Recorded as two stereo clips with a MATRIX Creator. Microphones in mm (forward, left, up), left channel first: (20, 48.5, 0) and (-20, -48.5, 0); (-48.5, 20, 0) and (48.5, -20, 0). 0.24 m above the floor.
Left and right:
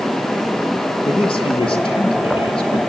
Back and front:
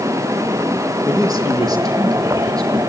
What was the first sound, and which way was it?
A man speaking, 30° left.